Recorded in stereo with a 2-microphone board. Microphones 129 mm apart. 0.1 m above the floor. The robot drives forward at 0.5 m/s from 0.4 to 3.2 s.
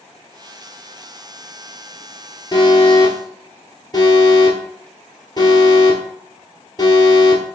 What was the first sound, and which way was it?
An alarm, 35° left (ahead or behind).